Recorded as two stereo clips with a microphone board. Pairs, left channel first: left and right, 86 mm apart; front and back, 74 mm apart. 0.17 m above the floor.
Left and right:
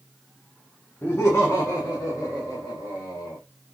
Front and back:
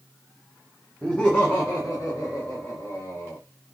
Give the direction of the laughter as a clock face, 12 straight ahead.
10 o'clock.